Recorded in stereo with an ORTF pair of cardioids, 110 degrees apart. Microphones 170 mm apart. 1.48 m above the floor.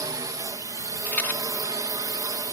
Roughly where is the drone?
Ahead.